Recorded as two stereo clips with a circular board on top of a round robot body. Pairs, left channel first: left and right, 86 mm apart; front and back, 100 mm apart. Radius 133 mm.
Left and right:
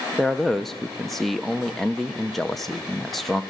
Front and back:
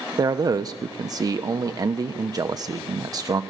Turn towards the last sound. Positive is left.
turn(degrees=175)